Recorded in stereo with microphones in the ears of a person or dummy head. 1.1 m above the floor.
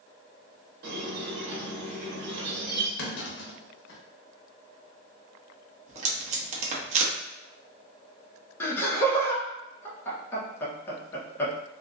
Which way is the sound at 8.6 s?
15° left (ahead or behind).